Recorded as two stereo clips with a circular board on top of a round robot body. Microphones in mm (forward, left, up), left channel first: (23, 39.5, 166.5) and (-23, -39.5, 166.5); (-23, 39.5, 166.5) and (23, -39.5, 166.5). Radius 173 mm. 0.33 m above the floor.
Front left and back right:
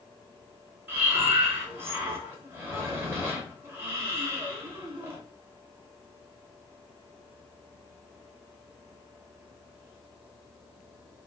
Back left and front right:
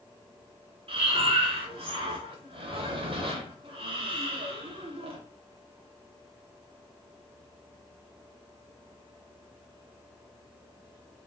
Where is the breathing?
55° right, 1.1 m.